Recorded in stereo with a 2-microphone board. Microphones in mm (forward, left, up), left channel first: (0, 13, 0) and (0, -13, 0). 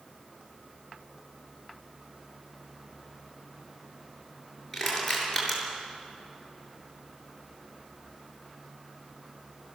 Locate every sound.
4.7 s crushing: 5° right (ahead or behind), 7 m